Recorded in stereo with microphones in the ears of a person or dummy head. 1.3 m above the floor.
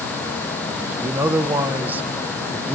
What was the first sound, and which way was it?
A man speaking, 10° right (ahead or behind).